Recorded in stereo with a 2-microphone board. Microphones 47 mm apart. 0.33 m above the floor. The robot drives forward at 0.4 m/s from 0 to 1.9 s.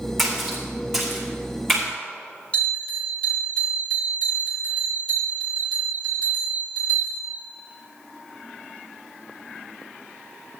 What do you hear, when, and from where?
0.2 s a splash: 5° left (ahead or behind), 4.5 m
2.5 s a bell: 20° left (ahead or behind), 4.5 m